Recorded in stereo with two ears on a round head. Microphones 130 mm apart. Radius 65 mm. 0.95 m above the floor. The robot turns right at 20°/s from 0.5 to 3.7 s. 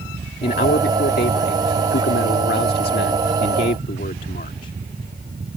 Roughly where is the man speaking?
Ahead left.